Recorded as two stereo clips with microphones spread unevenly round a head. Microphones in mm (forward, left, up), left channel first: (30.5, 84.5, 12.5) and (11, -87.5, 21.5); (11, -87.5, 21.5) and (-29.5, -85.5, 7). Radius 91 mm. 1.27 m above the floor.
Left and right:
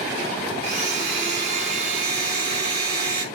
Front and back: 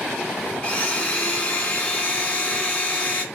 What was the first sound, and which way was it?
A blender, 45° right.